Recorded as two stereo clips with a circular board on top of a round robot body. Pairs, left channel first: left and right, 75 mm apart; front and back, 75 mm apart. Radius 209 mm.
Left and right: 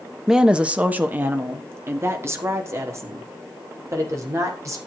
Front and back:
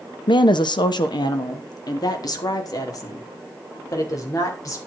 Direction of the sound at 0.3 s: 5° right.